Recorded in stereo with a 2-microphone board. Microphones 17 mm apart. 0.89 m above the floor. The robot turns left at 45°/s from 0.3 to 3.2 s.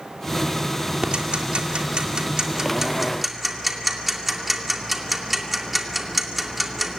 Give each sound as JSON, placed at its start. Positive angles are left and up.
{"t": 1.0, "sound": "ticking", "side_deg": -70, "distance_m": 2.0}